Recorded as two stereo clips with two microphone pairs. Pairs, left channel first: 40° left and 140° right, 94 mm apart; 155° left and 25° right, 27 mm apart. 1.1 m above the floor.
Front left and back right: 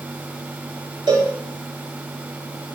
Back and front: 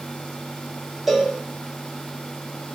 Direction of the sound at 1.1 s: 105° right.